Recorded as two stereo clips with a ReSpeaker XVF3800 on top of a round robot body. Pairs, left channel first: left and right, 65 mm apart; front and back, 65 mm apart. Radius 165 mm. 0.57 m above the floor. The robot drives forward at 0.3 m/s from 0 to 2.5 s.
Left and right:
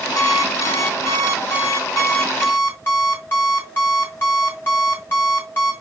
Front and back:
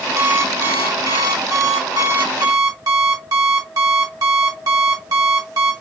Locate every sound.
0.2 s an alarm clock: 125° left, 0.9 m; by 5.7 s 150° left, 1.4 m